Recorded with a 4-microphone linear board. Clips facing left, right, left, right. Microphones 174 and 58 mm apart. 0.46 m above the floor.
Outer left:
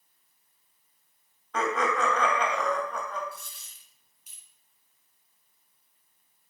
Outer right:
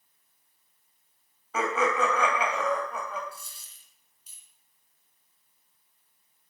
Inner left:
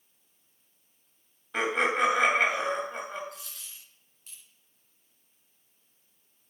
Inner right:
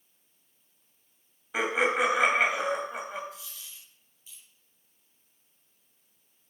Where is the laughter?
5° right (ahead or behind), 2.5 m.